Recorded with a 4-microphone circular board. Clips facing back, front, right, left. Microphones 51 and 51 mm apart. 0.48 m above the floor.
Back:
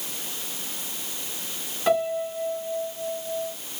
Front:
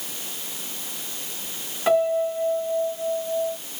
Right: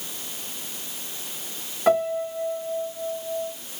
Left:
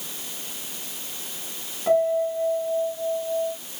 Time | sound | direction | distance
1.9 | a piano | 80° right | 1.3 m